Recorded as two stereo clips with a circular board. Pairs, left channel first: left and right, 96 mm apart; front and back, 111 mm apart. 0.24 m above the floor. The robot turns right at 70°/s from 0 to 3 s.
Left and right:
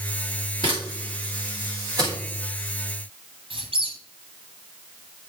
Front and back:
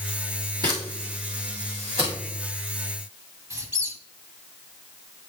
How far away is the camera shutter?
About 6 m.